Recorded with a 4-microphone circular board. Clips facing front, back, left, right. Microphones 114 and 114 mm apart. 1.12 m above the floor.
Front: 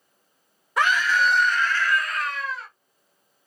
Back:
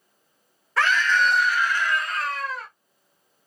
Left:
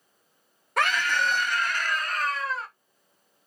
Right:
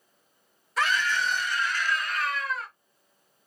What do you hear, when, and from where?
0.8 s a scream: 70° left, 1.2 m; by 2.7 s 150° left, 1.1 m